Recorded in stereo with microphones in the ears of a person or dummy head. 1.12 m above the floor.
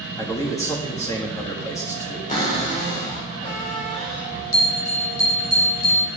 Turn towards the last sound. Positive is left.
turn(degrees=60)  # may be behind; listen again after turning